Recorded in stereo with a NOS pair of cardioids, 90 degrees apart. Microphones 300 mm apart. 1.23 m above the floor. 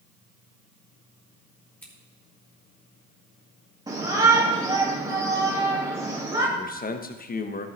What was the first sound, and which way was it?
Scissors, 5° left.